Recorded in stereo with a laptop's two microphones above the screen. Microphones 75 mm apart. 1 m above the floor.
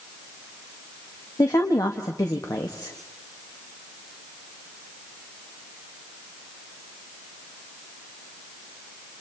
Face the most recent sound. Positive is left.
turn(degrees=50)  # may be behind; listen again after turning